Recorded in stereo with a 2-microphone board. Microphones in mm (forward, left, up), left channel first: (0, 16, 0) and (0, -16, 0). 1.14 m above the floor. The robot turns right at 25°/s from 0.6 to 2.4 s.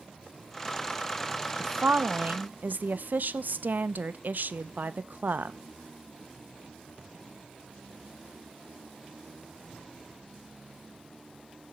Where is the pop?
I don't hear a pop.